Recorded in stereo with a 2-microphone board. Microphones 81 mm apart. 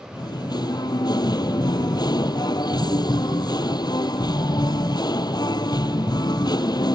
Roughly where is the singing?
Left.